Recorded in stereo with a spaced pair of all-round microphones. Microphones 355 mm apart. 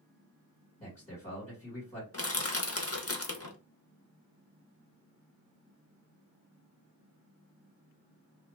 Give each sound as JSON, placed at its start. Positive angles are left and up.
{"t": 0.8, "sound": "a man speaking", "side_deg": 10, "distance_m": 1.7}
{"t": 2.1, "sound": "crushing", "side_deg": 40, "distance_m": 0.6}